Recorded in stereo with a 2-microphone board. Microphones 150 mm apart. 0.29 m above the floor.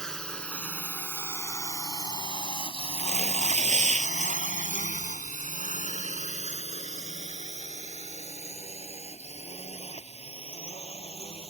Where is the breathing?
No breathing in this recording.